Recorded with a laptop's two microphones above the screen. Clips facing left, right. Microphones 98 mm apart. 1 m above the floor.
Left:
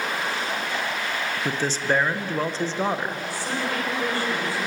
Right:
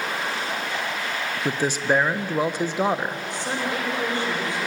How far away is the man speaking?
About 0.6 m.